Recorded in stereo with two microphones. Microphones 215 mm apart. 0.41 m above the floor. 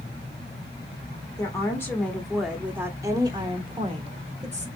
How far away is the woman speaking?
About 1.3 m.